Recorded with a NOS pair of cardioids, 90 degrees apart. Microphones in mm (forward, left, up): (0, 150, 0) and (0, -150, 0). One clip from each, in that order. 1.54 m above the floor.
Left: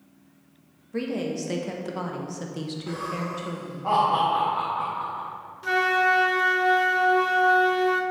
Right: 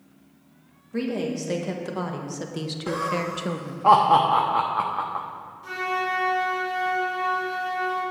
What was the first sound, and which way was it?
A woman speaking, straight ahead.